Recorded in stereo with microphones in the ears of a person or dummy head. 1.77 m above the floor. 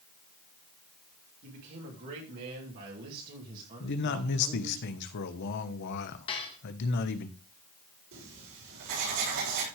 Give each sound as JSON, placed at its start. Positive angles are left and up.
{"t": 1.4, "sound": "a man speaking", "side_deg": -60, "distance_m": 3.5}
{"t": 3.8, "sound": "a man speaking", "side_deg": 60, "distance_m": 1.3}
{"t": 6.3, "sound": "dishes clattering", "side_deg": 30, "distance_m": 1.5}
{"t": 8.1, "sound": "writing", "side_deg": -65, "distance_m": 6.0}